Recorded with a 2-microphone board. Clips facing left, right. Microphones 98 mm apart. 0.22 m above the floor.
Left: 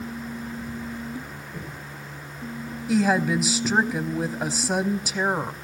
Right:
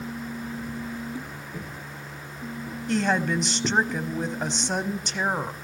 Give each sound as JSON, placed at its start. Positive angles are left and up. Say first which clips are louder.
{"t": 1.5, "sound": "footsteps", "louder": "even", "side_deg": -5, "distance_m": 4.5}
{"t": 2.9, "sound": "a woman speaking", "louder": "left 3 dB", "side_deg": 5, "distance_m": 1.0}